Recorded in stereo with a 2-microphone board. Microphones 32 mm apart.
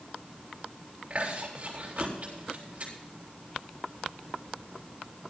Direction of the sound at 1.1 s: 45° right (ahead or behind).